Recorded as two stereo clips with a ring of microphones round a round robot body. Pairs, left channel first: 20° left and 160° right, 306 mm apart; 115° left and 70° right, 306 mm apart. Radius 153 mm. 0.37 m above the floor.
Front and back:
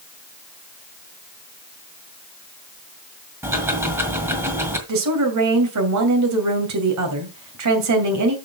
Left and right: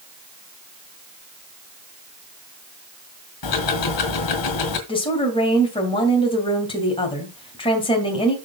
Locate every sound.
3.4 s ticking: 120° left, 2.5 m
4.9 s a woman speaking: 175° right, 2.5 m